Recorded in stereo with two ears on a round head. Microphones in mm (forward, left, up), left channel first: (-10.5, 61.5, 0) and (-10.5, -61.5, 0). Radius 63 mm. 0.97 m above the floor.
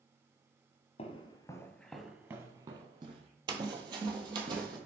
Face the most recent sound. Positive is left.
turn(degrees=-30)  # may be behind; listen again after turning